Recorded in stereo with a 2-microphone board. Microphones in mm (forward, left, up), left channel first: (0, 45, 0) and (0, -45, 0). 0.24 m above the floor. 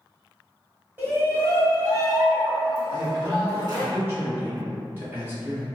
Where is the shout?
20° right (ahead or behind), 1.2 m; by 3.9 s 45° right (ahead or behind), 2.5 m.